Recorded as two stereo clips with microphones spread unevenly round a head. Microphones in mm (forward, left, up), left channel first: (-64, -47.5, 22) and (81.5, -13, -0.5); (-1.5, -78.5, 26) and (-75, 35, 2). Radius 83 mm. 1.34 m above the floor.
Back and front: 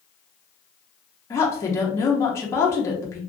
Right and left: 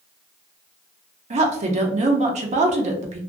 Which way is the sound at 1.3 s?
115° left.